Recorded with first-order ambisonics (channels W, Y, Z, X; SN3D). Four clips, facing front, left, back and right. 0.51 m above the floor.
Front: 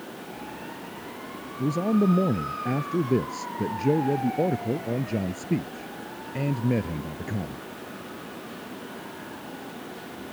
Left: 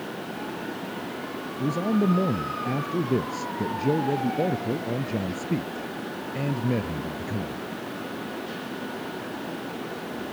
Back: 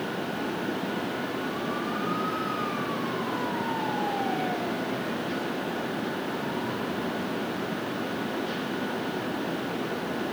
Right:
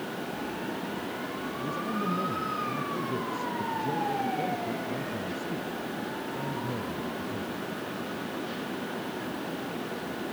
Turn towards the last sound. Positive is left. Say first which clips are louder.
# left 9 dB, front 6 dB
turn(degrees=30)